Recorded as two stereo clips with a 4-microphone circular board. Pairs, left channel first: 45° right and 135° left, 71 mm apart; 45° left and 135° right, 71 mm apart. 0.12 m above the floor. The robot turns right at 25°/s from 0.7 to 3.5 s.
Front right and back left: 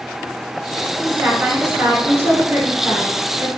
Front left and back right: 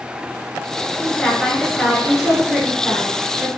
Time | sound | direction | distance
1.0 | a woman speaking | 120° left | 1.2 m